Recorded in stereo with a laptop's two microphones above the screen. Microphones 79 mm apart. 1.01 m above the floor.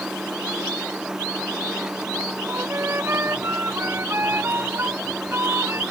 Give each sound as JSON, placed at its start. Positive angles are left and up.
{"t": 0.0, "sound": "a machine running", "side_deg": -10}
{"t": 2.5, "sound": "a flute", "side_deg": -30}